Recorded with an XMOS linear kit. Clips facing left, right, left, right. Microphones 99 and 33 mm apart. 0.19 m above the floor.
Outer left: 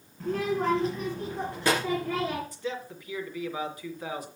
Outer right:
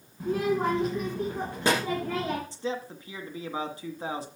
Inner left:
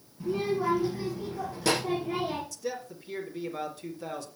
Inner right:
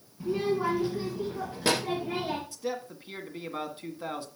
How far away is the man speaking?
About 1.8 m.